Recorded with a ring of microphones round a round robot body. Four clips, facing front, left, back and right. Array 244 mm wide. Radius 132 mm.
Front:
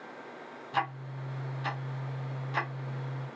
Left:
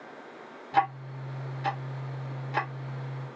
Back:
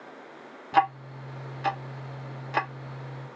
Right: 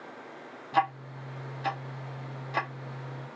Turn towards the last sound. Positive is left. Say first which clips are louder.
# left 1 dB, back 9 dB
turn(degrees=180)